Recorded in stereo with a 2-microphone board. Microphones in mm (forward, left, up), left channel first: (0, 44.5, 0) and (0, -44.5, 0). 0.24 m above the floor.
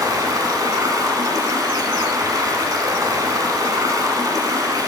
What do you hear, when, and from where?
0.0 s running water: 45° right (ahead or behind), 1.0 m